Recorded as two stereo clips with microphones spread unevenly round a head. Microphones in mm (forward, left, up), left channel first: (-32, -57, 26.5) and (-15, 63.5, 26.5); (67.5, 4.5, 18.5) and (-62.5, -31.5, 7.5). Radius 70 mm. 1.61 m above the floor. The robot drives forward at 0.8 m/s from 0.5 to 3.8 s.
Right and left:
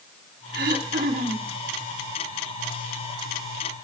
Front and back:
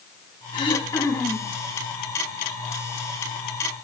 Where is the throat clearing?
65° left, 1.7 m; by 1.5 s 100° left, 1.6 m.